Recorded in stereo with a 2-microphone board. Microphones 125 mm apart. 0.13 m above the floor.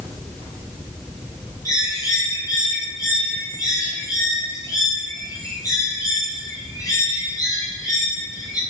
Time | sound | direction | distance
1.6 | a bird | 25° left (ahead or behind) | 6.5 m